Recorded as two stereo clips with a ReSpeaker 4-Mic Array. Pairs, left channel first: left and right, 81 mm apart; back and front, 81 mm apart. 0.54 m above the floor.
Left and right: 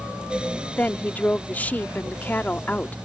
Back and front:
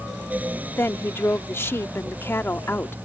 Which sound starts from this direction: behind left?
A woman speaking, at 0.8 s.